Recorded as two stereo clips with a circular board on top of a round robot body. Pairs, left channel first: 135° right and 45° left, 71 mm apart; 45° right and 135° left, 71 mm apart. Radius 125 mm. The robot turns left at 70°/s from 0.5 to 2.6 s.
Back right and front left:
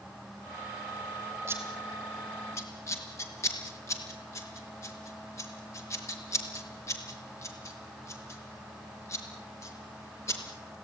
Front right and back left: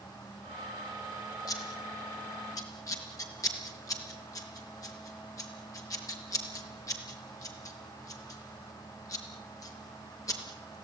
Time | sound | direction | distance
1.5 | scissors | 5° right | 5 m